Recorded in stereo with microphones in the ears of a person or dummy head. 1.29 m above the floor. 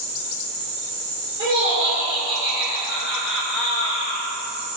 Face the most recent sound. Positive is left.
turn(degrees=50)  # may be behind; listen again after turning